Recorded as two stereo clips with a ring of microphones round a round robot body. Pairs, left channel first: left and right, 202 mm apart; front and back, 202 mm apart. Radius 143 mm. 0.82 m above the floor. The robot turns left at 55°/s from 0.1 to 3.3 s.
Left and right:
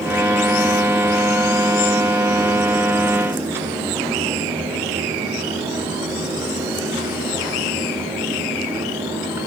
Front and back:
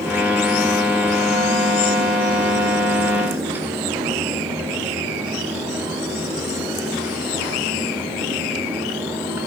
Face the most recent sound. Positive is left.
No sound to turn to.